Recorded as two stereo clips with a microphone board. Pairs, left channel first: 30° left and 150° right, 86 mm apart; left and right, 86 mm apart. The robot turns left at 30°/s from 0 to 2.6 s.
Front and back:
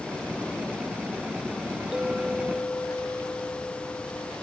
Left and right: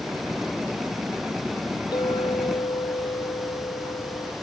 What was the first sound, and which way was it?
A clink, 125° left.